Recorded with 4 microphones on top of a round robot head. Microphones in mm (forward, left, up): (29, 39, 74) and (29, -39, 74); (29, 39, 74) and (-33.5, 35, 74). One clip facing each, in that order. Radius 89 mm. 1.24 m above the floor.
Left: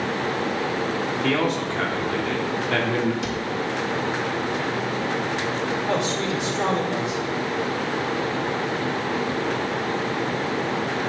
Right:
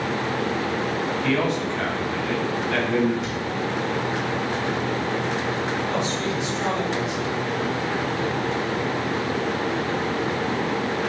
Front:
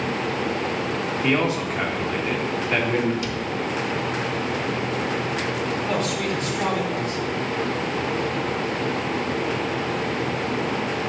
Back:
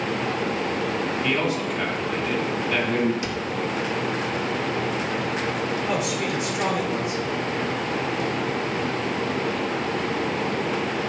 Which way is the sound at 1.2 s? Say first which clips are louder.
Left 1 dB, front 5 dB; 60° left.